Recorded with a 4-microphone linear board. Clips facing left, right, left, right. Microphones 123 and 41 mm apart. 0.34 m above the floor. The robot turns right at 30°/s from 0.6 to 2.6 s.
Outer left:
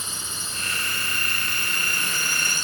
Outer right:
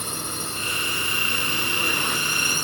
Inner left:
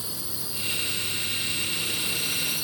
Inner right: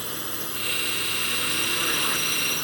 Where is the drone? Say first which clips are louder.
Outer right 6 dB, inner right 5 dB; 60° right (ahead or behind); by 2.6 s 55° right (ahead or behind).